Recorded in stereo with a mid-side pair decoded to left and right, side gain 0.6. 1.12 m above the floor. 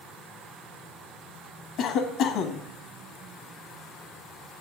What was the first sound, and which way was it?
A cough, 65° left.